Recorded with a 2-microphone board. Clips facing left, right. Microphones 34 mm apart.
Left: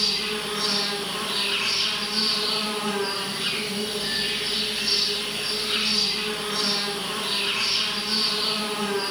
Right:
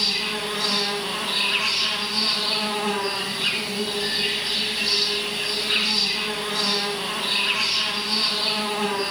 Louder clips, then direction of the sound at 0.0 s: Right 1 dB; 45° right (ahead or behind).